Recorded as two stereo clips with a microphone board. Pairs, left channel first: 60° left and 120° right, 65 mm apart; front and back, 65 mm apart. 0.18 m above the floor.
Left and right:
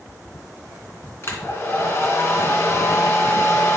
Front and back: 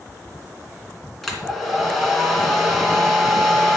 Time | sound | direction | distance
1.2 | a hair dryer | 85° left | 2 m